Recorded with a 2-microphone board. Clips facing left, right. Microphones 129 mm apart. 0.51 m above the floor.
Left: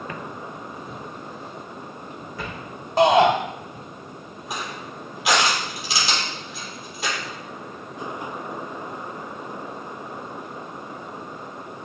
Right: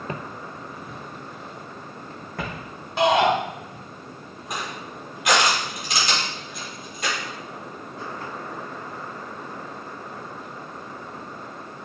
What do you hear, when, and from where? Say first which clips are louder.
0.1 s footsteps: even; 30° right (ahead or behind), 0.6 m; by 2.7 s 60° right (ahead or behind), 2.5 m
3.0 s a shout: left 3 dB; 40° left (ahead or behind), 2 m
4.5 s crushing: even; 5° left (ahead or behind), 4 m